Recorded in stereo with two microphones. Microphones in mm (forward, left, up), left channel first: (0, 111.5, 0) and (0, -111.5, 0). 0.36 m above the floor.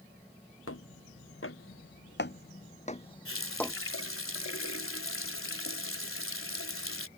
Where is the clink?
I don't hear a clink.